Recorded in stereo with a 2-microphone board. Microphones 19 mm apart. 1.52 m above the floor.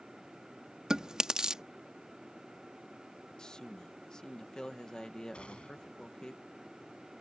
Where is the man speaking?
40° left (ahead or behind).